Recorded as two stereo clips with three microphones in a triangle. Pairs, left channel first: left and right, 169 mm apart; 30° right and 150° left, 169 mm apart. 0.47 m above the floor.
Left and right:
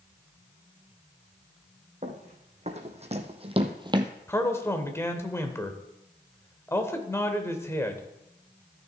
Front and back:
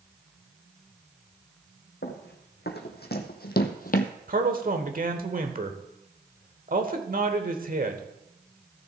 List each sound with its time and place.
2.0 s running footsteps: 45° right, 2 m; by 4.1 s 25° right, 0.7 m
4.3 s a man speaking: 160° left, 1.2 m